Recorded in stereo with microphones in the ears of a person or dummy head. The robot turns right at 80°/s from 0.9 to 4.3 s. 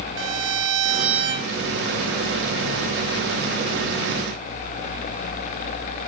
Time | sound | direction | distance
0.2 | a violin | 100° right | 5 m